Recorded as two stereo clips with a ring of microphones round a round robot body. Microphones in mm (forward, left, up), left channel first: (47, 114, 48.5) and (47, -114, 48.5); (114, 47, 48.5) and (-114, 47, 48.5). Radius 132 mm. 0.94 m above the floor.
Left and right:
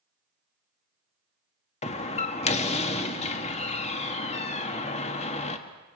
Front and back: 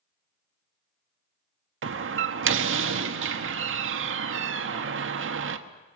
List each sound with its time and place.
1.8 s a door slam: 155° left, 1.4 m